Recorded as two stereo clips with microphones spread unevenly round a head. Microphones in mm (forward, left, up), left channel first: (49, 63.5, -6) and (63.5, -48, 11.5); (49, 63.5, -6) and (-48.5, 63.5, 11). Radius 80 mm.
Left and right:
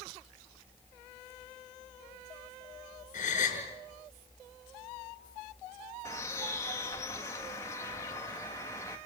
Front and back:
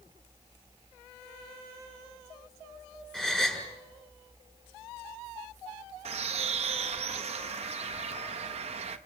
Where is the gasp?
85° left, 6.5 m.